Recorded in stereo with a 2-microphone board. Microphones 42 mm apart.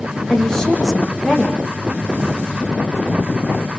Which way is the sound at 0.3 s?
15° left (ahead or behind).